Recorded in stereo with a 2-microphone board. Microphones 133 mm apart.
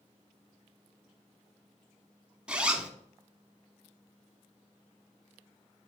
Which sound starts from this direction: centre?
A zipper, at 2.5 s.